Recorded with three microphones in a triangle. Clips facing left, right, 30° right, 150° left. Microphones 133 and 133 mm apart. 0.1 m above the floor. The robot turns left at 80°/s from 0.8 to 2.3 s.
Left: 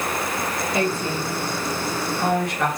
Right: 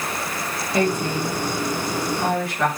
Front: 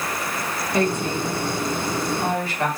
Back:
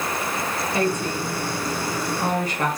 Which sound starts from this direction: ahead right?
A woman speaking, at 0.7 s.